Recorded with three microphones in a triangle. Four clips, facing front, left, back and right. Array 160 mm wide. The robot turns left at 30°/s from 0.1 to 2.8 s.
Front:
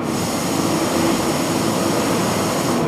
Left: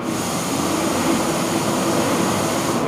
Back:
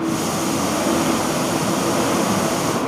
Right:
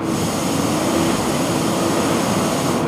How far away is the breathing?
No breathing in this recording.